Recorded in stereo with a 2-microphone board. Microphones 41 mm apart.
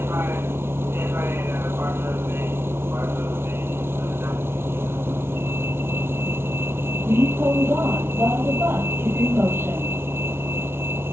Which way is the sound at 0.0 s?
85° right.